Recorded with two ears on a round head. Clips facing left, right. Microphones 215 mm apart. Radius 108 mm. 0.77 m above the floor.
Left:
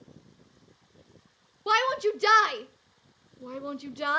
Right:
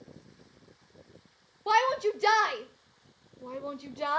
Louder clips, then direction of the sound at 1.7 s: Left 1 dB; 20° left (ahead or behind).